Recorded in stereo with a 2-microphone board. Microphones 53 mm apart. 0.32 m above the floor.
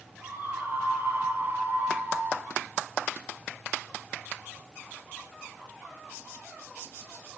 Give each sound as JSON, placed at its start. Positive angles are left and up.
{"t": 0.2, "sound": "a scream", "side_deg": -45, "distance_m": 7.0}